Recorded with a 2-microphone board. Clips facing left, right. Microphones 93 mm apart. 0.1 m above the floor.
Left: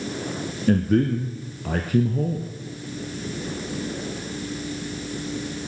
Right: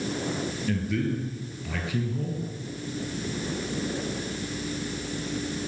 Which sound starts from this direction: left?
A man speaking, at 0.7 s.